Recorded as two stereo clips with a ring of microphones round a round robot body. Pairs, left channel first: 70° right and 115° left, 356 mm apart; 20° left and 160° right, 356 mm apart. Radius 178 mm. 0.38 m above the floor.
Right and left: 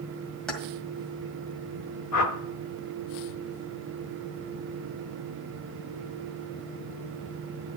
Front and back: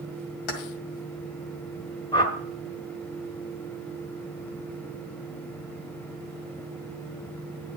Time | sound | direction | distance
0.5 | keys jangling | 20° left | 1.7 m
2.1 | a whoosh | 50° right | 1.2 m